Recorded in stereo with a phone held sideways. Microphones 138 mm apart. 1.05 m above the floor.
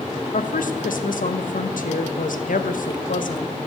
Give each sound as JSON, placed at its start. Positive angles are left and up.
{"t": 0.3, "sound": "a woman speaking", "side_deg": 80, "distance_m": 0.6}